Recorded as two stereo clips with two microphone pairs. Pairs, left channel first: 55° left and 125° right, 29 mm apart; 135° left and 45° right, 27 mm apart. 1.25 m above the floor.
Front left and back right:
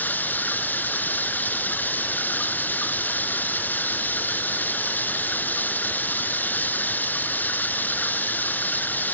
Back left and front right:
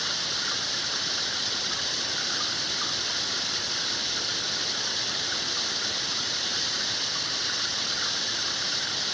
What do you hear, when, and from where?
0.0 s running water: 45° left